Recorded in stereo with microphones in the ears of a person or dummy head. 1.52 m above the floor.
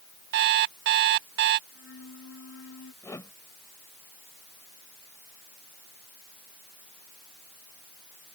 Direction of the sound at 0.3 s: 60° right (ahead or behind).